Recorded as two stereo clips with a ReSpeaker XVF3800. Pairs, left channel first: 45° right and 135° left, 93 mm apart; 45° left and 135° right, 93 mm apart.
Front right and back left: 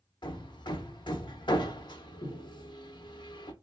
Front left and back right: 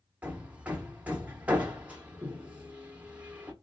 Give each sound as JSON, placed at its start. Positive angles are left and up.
{"t": 0.2, "sound": "hammering", "azimuth_deg": -60, "distance_m": 0.7}